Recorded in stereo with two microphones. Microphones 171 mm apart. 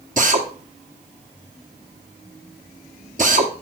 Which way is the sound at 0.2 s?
50° right (ahead or behind).